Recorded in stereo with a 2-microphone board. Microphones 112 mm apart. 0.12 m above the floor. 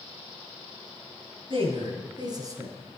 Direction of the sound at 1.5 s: 55° right (ahead or behind).